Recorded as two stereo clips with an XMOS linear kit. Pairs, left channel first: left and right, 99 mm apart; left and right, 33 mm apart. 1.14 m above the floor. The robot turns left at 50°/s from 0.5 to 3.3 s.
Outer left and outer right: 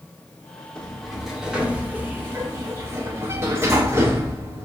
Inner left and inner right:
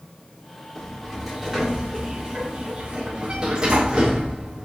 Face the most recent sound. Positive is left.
turn(degrees=-25)  # may be behind; listen again after turning